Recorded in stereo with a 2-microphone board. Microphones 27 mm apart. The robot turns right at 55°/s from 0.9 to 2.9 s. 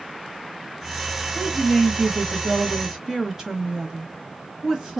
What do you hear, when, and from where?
1.4 s a woman speaking: 5° left (ahead or behind), 0.9 m; by 5.0 s 20° right (ahead or behind), 0.9 m